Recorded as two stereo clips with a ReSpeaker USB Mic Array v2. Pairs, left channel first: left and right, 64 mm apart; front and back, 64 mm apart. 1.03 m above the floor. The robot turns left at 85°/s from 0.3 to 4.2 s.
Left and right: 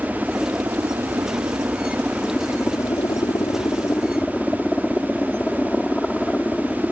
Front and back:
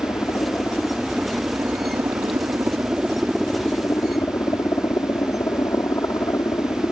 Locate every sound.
0.0 s a helicopter: 15° right; by 6.9 s 10° left